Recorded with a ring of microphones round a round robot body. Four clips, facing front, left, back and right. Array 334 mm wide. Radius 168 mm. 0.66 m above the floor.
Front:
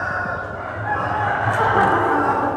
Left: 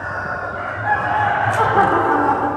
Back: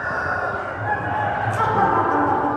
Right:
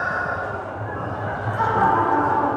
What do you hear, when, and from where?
1.6 s laughter: 70° left, 2 m